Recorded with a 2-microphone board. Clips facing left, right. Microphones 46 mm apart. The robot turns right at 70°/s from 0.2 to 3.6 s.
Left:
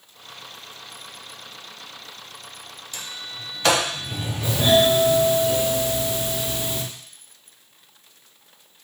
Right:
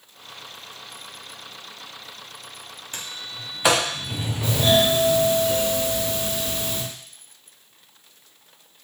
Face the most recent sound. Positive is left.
turn(degrees=20)  # may be behind; listen again after turning